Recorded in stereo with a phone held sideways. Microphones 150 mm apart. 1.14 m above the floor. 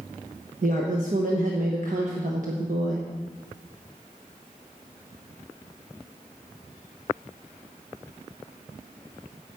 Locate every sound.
0.6 s a woman speaking: 60° right (ahead or behind), 1.1 m